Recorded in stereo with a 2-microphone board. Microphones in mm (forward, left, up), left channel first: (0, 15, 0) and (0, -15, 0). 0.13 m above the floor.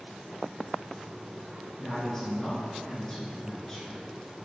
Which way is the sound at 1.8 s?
10° left (ahead or behind).